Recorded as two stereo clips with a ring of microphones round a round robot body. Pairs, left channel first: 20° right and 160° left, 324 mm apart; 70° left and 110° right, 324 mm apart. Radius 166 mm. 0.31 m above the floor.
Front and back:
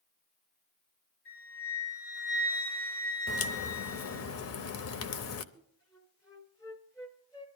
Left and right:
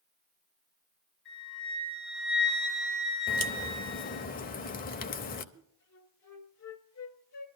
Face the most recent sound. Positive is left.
turn(degrees=55)